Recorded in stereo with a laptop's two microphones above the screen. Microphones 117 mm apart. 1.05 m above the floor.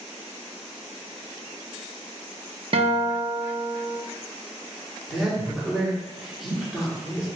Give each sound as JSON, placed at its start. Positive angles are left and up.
{"t": 2.7, "sound": "a guitar", "side_deg": -55, "distance_m": 0.6}
{"t": 5.1, "sound": "a man speaking", "side_deg": -5, "distance_m": 1.8}